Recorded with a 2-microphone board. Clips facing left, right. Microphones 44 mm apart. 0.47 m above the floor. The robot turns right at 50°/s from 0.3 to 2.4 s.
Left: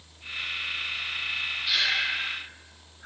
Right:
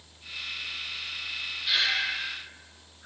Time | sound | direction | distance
1.7 | breathing | 10° right (ahead or behind) | 7.5 m